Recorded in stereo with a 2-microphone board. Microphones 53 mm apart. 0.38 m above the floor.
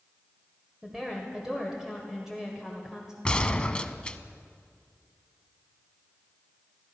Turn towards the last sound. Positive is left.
turn(degrees=20)  # may be behind; listen again after turning